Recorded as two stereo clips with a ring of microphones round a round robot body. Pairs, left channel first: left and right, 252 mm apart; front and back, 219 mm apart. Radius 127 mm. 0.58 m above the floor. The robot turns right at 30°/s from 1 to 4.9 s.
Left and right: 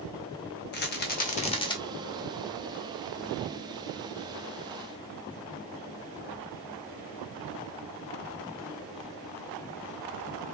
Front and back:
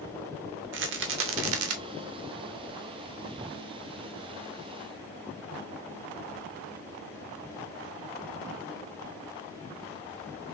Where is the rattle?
145° left, 0.8 m; by 1.8 s 165° left, 0.8 m.